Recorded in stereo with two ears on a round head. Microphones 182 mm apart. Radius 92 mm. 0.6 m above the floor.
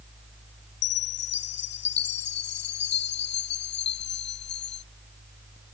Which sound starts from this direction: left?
A chime, at 0.8 s.